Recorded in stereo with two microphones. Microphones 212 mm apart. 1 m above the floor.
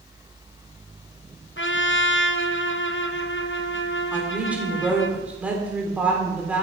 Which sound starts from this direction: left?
A trumpet, at 1.6 s.